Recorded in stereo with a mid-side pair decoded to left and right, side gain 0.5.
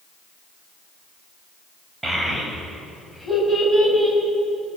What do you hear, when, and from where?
2.0 s a child speaking: 25° right, 3.5 m; by 4.2 s 15° right, 4.5 m